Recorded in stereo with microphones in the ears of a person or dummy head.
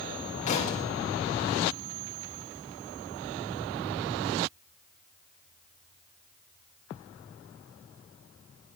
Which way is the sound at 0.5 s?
40° left (ahead or behind).